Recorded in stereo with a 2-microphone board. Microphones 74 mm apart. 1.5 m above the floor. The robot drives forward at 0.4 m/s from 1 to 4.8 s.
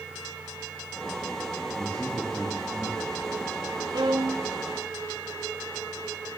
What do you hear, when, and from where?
1.7 s a man speaking: 30° left (ahead or behind), 3 m; by 3.3 s 40° left (ahead or behind), 2.5 m
3.9 s a violin: 75° right (ahead or behind), 1.8 m